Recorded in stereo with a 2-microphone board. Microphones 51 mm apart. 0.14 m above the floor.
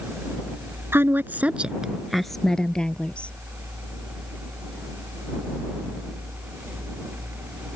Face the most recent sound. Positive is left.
turn(degrees=20)  # may be behind; listen again after turning